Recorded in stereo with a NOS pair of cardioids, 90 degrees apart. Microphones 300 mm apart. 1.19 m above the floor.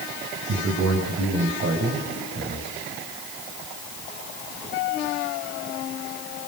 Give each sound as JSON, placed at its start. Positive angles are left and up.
{"t": 0.5, "sound": "a man speaking", "azimuth_deg": -50, "distance_m": 5.5}